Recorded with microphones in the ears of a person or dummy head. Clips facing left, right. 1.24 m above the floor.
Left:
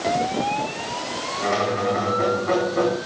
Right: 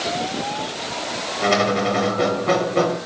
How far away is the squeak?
About 1.2 m.